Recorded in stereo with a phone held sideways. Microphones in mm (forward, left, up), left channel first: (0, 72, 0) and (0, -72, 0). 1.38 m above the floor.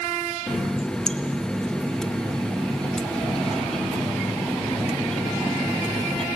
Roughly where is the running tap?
Centre.